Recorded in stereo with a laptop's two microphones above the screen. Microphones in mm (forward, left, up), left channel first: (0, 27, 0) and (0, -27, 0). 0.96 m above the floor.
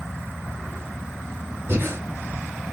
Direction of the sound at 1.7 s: 45° right (ahead or behind).